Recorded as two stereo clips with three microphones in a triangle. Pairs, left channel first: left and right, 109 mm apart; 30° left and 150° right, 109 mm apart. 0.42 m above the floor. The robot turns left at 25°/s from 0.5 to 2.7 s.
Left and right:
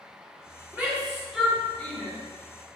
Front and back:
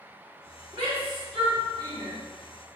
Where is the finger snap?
No finger snap in this recording.